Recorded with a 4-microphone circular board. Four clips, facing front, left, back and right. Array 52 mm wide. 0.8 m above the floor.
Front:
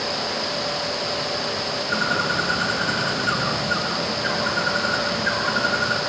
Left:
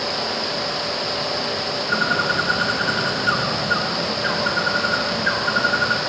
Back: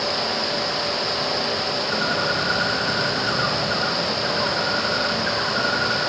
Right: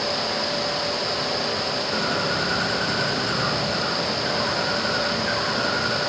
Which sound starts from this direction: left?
A bird, at 1.9 s.